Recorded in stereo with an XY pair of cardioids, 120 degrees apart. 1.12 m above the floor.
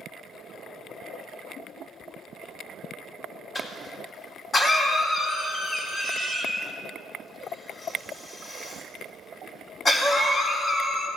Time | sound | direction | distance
3.5 | a cough | 30° left | 3 m